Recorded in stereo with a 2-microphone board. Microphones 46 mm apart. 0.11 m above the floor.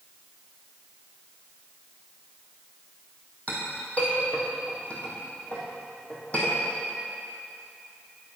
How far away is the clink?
About 2.5 m.